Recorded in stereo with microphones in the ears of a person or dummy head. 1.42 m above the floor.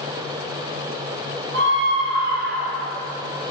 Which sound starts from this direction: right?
A scream, at 1.5 s.